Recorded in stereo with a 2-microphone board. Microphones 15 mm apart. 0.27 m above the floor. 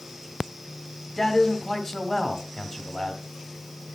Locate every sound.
1.2 s a man speaking: 30° left (ahead or behind), 1.9 m